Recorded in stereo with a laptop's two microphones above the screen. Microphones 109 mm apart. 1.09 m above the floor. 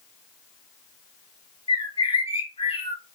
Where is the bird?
55° left (ahead or behind), 2.5 m.